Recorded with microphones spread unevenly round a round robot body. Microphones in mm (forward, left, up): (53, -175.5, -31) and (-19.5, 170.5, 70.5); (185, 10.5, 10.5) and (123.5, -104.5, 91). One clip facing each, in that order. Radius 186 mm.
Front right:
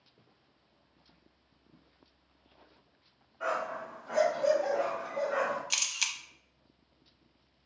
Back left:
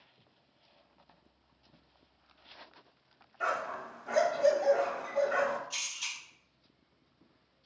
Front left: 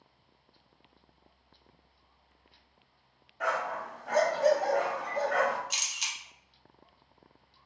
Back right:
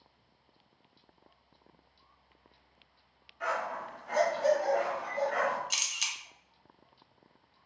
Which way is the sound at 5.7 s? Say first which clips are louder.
Front right 3 dB, front left 1 dB; 80° right.